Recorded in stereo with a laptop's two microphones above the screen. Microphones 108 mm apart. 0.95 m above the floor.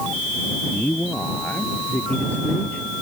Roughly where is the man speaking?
Centre.